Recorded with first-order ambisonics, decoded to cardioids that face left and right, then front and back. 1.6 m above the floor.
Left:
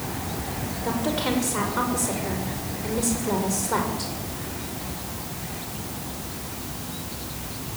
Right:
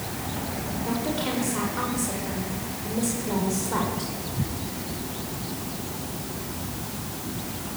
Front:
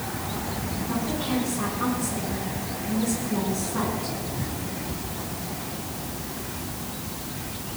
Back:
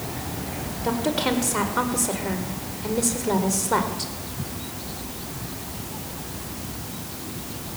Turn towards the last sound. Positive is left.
turn(degrees=165)